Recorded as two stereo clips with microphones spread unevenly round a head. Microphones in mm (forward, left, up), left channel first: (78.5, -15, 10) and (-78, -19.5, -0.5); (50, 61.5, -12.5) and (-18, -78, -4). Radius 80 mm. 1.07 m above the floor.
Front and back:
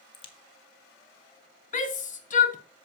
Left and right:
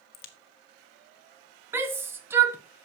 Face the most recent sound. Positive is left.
turn(degrees=-40)